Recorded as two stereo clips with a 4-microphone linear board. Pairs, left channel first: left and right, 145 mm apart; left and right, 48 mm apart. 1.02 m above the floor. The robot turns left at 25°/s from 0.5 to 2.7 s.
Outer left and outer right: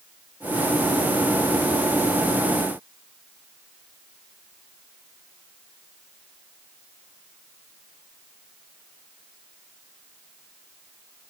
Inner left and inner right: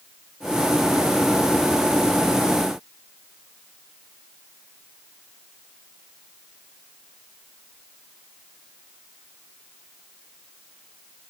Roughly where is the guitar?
No guitar in this recording.